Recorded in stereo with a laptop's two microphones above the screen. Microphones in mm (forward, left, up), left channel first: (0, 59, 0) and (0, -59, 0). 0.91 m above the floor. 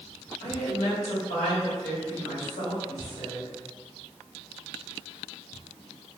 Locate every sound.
0.4 s a woman speaking: 70° left (ahead or behind), 1.5 m